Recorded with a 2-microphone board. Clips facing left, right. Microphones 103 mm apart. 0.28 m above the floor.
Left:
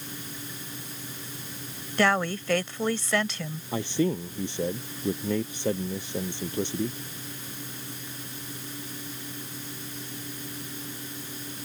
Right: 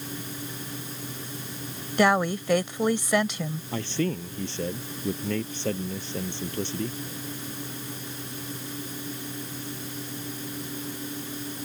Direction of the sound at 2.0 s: 15° right (ahead or behind).